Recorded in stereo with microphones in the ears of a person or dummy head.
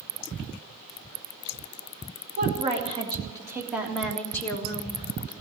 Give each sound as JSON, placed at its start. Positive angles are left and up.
{"t": 2.4, "sound": "a woman speaking", "side_deg": -40, "distance_m": 2.5}